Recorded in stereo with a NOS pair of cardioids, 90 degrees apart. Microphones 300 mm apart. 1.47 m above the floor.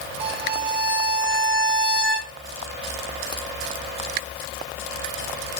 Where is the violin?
45° right, 0.6 m.